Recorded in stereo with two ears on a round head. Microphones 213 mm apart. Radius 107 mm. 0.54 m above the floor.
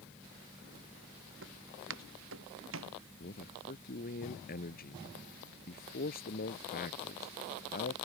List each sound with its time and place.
1.4 s footsteps: 55° right (ahead or behind); by 3.0 s 60° right (ahead or behind)
3.2 s a man speaking: 40° left (ahead or behind)